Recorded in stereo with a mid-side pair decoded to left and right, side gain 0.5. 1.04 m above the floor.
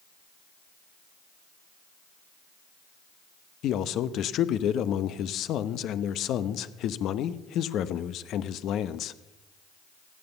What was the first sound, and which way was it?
A man speaking, 65° left.